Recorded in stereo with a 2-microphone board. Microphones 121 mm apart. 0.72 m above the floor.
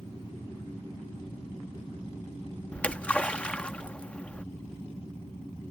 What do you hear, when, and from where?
2.7 s a splash: 10° left (ahead or behind)